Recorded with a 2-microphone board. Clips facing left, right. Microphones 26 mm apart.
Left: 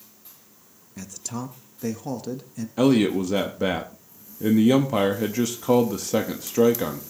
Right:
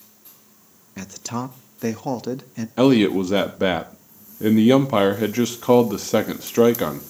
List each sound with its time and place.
1.0 s a man speaking: 30° right (ahead or behind), 0.6 m
2.8 s a man speaking: 25° right (ahead or behind), 0.6 m